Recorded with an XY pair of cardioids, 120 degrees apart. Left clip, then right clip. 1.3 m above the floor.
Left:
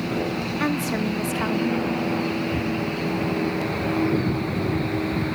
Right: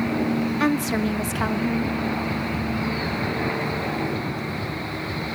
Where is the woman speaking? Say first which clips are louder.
Right 2 dB; 15° right, 0.9 m.